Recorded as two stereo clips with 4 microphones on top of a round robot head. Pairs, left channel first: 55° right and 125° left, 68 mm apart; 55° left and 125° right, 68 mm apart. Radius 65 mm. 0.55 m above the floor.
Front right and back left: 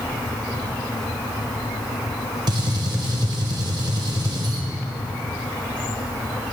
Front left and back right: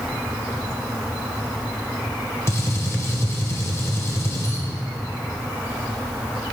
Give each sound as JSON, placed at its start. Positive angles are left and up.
{"t": 2.5, "sound": "a gunshot", "azimuth_deg": 105, "distance_m": 1.7}